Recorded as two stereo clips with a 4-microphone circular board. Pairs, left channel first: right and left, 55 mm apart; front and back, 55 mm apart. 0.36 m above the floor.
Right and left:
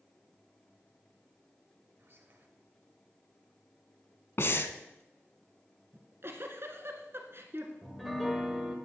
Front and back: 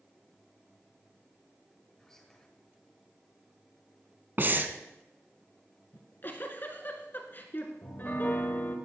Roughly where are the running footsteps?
I don't hear running footsteps.